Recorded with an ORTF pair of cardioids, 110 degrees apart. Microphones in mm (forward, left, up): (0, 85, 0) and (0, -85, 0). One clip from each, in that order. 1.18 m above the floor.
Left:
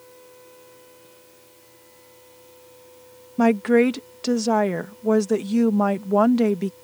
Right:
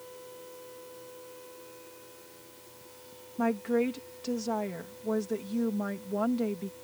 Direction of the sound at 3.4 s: 70° left.